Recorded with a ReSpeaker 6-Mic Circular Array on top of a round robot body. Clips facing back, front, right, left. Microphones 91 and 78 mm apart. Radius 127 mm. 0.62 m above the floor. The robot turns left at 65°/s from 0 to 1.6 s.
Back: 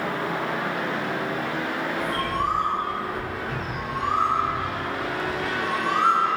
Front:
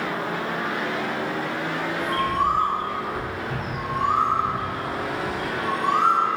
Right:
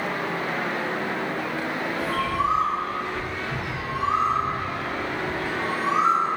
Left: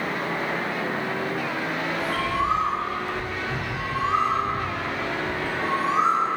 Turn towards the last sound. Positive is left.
turn(degrees=-10)